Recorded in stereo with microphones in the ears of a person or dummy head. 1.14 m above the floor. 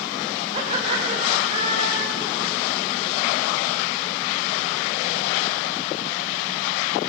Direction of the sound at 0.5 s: 25° right (ahead or behind).